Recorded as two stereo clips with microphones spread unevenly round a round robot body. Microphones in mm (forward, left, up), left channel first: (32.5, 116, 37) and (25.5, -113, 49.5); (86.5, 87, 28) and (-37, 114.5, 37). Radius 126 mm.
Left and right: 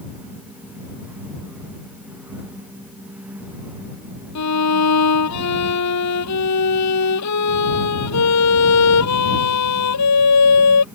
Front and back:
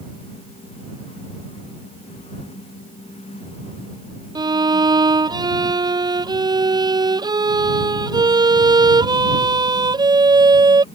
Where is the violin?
110° left.